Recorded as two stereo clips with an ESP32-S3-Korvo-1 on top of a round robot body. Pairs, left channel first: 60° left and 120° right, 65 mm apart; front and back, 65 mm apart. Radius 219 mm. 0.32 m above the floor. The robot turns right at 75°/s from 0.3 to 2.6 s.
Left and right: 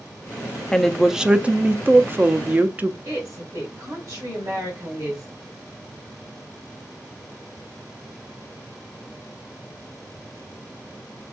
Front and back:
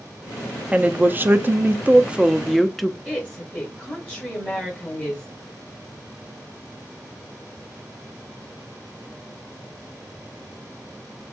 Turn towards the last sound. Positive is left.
turn(degrees=-75)